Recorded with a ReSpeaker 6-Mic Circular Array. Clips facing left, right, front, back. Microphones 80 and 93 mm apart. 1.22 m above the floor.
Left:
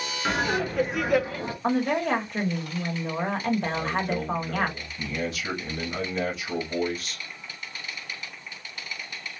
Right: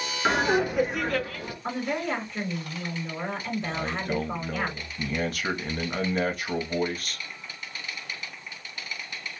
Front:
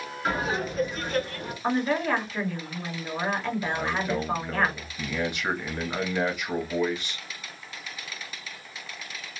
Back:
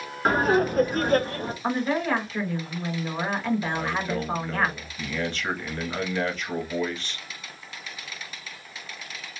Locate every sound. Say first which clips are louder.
0.2 s laughter: right 3 dB, back 7 dB; 145° right, 0.7 m; by 1.5 s 130° left, 0.5 m
1.6 s a woman speaking: left 5 dB, even; 90° left, 1.0 m
3.7 s a man speaking: left 2 dB, even; 75° right, 0.8 m